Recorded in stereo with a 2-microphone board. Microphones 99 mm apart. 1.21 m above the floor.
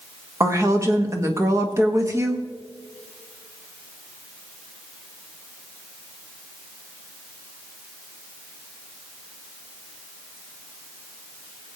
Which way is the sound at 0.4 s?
30° right (ahead or behind).